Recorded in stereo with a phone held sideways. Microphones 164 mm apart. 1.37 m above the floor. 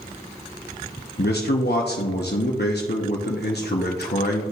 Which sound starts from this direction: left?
A man speaking, at 1.2 s.